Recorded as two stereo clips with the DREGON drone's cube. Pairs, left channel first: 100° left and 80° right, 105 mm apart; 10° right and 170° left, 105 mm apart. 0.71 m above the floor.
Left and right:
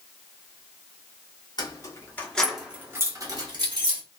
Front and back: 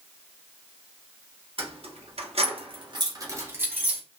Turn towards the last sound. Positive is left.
turn(degrees=-115)